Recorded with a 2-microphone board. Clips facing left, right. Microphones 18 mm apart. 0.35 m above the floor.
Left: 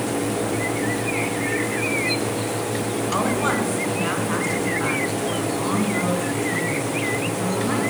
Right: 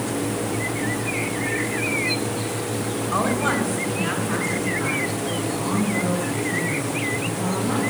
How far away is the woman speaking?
About 3 m.